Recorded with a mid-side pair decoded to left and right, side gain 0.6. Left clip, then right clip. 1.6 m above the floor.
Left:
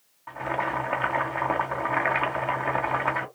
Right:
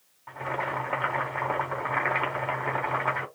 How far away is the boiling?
About 1.7 m.